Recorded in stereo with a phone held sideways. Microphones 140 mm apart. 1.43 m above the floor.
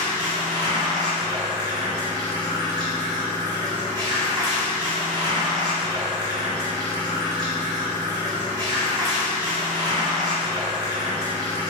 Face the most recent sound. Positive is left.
turn(degrees=-35)  # may be behind; listen again after turning